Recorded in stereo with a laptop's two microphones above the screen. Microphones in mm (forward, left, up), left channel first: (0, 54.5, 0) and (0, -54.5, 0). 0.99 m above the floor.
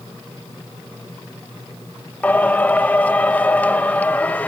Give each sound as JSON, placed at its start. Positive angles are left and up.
{"t": 2.2, "sound": "singing", "side_deg": 15, "distance_m": 0.8}